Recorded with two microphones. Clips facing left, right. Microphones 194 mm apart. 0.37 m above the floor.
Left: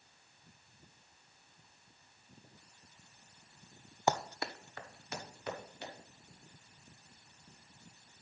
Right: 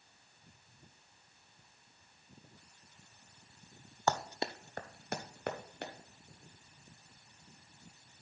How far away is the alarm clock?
No alarm clock in this recording.